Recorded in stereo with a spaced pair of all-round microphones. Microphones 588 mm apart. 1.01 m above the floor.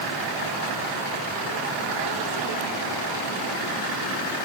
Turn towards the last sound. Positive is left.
No sound to turn to.